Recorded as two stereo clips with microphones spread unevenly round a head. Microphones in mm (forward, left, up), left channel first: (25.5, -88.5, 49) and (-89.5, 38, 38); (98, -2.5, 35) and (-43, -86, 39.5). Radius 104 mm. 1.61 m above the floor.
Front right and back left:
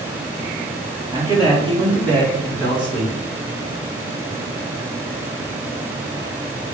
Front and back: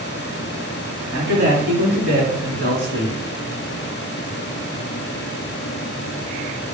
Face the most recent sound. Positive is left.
turn(degrees=-160)